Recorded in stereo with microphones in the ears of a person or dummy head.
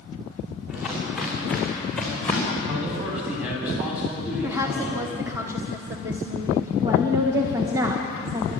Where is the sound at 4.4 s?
15° right (ahead or behind), 1.5 m.